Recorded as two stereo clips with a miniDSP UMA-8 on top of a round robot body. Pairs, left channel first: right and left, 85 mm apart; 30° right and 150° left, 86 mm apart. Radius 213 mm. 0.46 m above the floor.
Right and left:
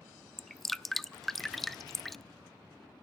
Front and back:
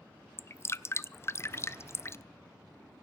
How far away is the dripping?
About 0.7 m.